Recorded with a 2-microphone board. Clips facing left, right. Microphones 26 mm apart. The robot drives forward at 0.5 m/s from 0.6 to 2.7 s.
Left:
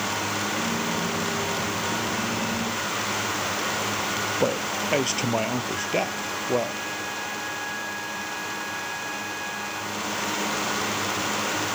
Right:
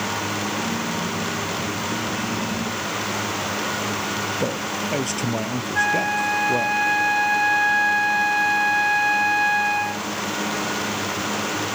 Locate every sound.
4.4 s a man speaking: 15° left (ahead or behind)
5.8 s a flute: 60° right (ahead or behind)